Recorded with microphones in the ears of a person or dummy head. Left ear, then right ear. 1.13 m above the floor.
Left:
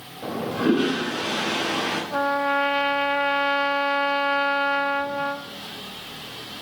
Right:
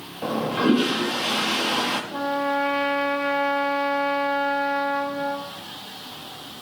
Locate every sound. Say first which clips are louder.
0.2 s a toilet flushing: right 2 dB; 25° right (ahead or behind), 1.0 m
2.1 s a trumpet: left 2 dB; 45° left (ahead or behind), 0.6 m